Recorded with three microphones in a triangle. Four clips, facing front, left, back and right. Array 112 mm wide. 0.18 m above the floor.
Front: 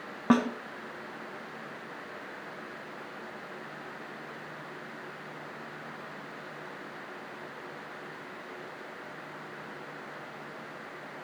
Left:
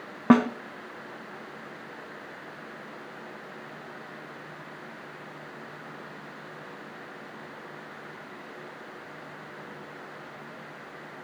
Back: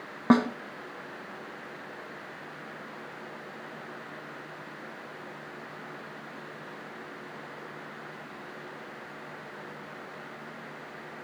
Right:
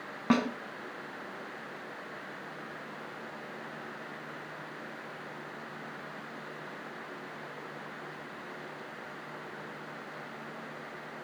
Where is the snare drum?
105° left, 1.1 m.